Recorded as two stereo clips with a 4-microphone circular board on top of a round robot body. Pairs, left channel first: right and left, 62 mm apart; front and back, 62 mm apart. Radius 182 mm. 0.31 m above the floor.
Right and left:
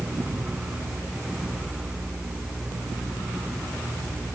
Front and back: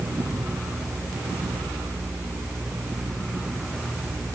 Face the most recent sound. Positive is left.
No sound to turn to.